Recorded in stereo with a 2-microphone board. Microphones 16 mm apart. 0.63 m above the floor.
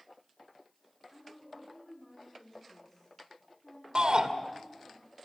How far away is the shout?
About 2.5 m.